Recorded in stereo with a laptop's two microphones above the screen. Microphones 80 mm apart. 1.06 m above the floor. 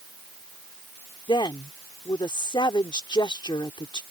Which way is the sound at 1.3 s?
75° left (ahead or behind).